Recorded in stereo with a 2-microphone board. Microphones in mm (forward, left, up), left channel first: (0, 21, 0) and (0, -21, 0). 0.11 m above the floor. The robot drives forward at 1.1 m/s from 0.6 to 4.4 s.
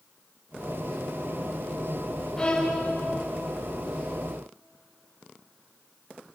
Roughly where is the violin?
Centre.